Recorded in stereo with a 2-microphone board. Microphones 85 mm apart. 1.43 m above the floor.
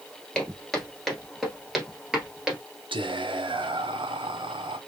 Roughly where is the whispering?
Right.